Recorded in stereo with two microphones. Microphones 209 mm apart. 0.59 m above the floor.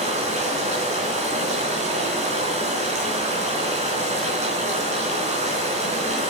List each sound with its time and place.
0.0 s running water: 30° right (ahead or behind), 4 m